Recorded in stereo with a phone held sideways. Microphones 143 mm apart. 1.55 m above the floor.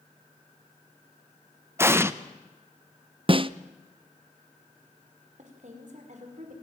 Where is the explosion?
20° right (ahead or behind), 0.8 m.